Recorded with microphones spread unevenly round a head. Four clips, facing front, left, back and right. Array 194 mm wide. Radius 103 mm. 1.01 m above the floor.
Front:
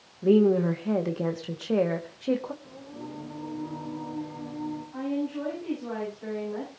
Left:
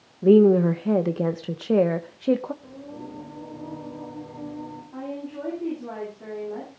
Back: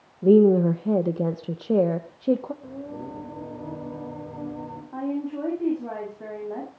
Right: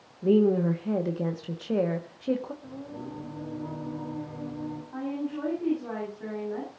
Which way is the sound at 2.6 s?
170° left.